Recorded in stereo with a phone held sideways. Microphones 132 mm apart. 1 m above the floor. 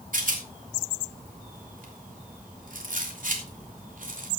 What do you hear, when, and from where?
0.1 s a rattle: 70° right (ahead or behind), 3 m